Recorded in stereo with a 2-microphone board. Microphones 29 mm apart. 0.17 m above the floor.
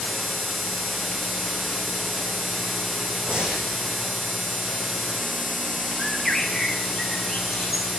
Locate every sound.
3.3 s breathing: 45° right (ahead or behind), 6 m
6.0 s a bird: 10° right (ahead or behind), 2.5 m